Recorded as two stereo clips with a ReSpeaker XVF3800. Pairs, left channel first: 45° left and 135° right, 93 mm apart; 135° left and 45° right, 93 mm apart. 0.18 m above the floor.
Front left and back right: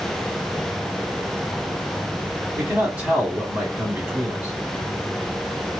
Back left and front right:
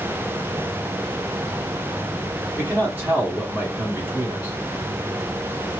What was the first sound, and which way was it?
A man speaking, 80° right.